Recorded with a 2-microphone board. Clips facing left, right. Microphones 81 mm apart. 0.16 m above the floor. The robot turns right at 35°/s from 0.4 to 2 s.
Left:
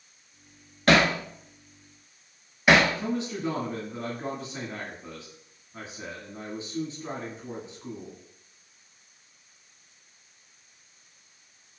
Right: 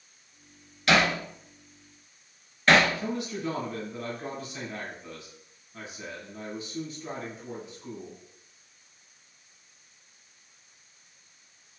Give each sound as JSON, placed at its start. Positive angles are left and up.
{"t": 0.9, "sound": "hammering", "side_deg": 50, "distance_m": 0.5}
{"t": 3.0, "sound": "a man speaking", "side_deg": 30, "distance_m": 1.3}